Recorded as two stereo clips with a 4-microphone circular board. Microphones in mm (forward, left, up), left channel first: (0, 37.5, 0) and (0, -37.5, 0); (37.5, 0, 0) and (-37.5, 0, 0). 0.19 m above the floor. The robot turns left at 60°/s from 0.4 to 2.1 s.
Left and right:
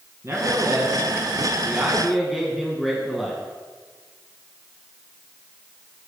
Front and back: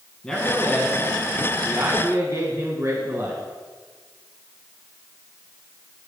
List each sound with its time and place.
0.2 s a man speaking: 75° right, 2 m; by 3.4 s 175° right, 2 m